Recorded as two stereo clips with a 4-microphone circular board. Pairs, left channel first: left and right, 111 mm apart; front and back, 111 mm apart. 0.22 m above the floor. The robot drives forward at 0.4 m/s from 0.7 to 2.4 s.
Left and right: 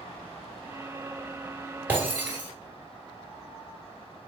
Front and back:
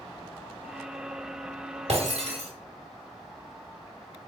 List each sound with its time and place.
1.9 s breaking glass: 165° right, 1.1 m; by 2.5 s 170° right, 1.3 m